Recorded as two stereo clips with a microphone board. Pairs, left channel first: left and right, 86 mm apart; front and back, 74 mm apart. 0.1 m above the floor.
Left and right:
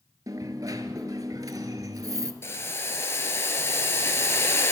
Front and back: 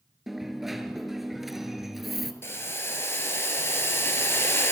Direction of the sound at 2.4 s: 40° left.